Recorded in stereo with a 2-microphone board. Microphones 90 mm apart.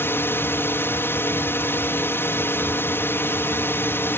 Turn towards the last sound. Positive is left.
turn(degrees=25)  # may be behind; listen again after turning